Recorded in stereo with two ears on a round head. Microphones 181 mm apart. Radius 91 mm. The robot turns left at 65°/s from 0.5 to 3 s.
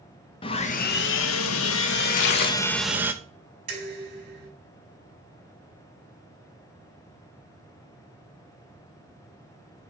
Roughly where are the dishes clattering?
Right.